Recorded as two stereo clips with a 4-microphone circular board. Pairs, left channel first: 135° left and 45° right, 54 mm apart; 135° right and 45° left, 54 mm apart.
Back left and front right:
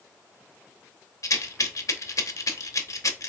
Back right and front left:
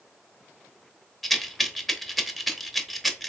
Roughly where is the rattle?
Behind left.